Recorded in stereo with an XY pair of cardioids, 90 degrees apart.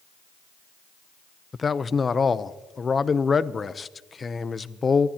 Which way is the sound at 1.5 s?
35° left.